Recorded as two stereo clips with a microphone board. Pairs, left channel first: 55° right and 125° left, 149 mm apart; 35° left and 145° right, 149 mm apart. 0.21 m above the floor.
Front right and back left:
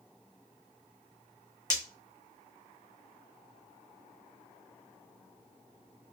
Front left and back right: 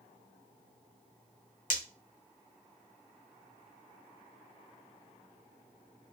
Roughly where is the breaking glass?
Ahead.